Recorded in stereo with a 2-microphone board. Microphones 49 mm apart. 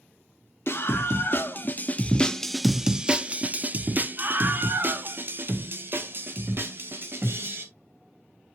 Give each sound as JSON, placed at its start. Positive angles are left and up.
{"t": 0.7, "sound": "a scream", "side_deg": 55, "distance_m": 1.0}